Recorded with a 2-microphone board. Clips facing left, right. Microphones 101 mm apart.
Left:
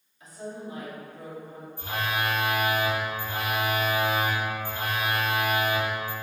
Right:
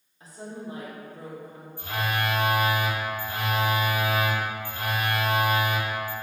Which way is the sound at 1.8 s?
20° left (ahead or behind).